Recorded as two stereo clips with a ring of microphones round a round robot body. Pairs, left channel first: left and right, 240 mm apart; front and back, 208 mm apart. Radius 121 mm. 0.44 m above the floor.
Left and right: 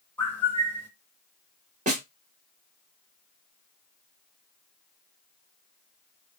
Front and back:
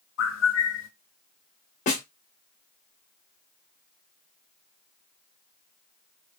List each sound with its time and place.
0.2 s a bird: 10° left, 0.8 m
1.9 s a snare drum: 40° right, 1.0 m